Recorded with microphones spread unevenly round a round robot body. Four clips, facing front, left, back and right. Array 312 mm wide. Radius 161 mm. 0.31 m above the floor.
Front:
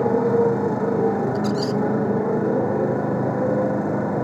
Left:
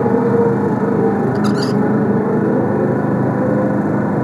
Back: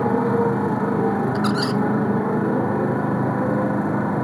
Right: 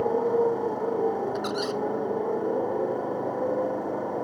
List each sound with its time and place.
0.0 s a motorcycle: 100° left
1.4 s a squeak: 150° left